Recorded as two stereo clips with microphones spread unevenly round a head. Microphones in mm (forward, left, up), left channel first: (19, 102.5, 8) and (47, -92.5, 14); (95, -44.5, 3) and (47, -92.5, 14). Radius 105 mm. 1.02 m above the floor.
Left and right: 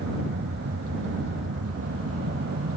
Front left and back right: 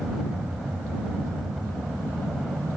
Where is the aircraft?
50° right.